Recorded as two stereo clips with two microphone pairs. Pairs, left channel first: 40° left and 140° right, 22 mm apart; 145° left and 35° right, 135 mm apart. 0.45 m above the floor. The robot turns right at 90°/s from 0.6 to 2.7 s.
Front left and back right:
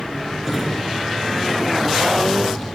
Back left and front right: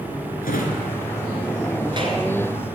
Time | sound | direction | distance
0.4 | a drawer | 145° left | 2.5 m